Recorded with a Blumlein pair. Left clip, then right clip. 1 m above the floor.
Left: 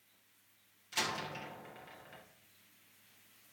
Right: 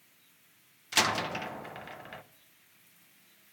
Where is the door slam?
60° right, 0.6 m.